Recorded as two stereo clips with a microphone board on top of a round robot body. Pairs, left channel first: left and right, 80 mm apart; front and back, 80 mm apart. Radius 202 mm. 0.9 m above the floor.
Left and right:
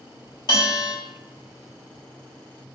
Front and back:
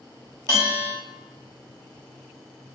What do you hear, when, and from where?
0.5 s a bell: 130° left, 1.1 m